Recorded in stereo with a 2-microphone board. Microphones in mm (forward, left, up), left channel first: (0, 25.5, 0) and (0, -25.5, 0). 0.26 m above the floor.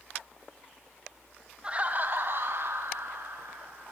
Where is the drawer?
I don't hear a drawer.